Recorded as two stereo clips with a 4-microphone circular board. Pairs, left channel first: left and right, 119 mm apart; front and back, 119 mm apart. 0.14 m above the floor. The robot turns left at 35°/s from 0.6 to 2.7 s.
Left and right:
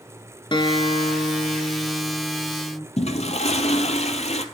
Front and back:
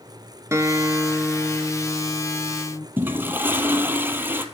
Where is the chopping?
No chopping in this recording.